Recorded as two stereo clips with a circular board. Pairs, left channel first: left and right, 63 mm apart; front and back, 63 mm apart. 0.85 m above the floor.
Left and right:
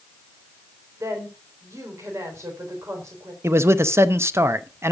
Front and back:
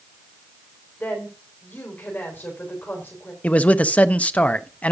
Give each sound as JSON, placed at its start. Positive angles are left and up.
{"t": 1.0, "sound": "a woman speaking", "azimuth_deg": -55, "distance_m": 4.0}
{"t": 3.4, "sound": "a man speaking", "azimuth_deg": -60, "distance_m": 0.6}